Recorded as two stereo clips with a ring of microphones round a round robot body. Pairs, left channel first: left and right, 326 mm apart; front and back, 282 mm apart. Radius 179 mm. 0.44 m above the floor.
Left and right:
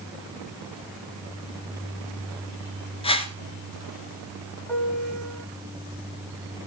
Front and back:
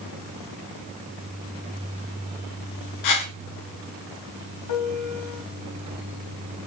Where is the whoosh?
15° left, 1.5 m.